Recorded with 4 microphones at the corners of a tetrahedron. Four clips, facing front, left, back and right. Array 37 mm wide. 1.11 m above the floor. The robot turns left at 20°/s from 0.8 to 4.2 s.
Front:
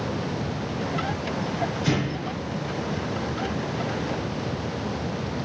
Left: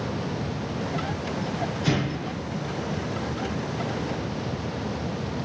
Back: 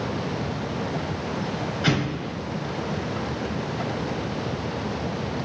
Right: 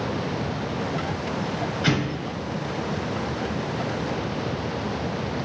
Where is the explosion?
150° right, 5.5 m; by 2.3 s 155° right, 5.5 m.